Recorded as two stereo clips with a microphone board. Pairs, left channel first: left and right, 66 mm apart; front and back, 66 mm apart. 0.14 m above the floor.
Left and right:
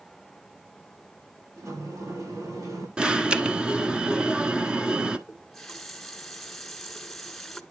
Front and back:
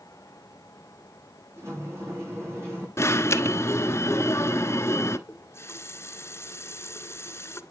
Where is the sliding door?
130° right, 7 m.